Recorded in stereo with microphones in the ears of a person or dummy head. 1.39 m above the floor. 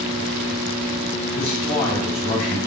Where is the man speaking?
40° left (ahead or behind), 4 m.